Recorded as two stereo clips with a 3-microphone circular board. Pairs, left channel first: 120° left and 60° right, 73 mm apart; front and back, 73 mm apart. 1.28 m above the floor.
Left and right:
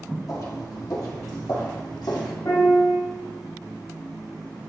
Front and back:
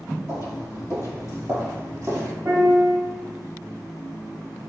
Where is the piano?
135° left, 2.0 m.